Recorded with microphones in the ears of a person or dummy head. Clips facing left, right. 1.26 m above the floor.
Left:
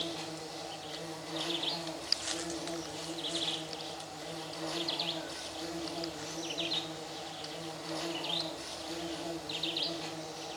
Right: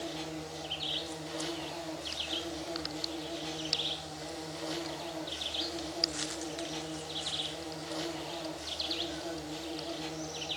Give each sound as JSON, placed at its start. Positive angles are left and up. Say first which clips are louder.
{"t": 0.0, "sound": "an insect", "louder": "right 1 dB", "side_deg": -10, "distance_m": 4.5}